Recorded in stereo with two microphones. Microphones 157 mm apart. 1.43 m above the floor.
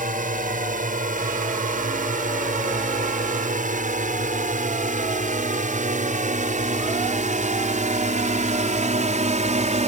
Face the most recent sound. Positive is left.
turn(degrees=-50)  # may be behind; listen again after turning